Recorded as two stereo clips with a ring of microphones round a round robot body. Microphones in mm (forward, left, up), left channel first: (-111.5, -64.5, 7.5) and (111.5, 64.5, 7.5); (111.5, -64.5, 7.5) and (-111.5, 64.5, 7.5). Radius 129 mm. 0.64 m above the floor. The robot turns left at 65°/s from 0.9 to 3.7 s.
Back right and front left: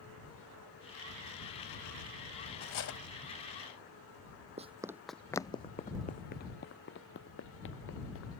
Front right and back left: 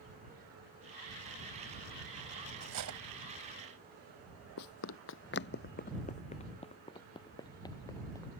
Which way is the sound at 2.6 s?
170° right.